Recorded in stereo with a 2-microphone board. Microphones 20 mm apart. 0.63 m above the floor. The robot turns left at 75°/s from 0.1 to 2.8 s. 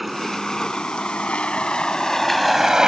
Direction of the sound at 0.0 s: 5° right (ahead or behind).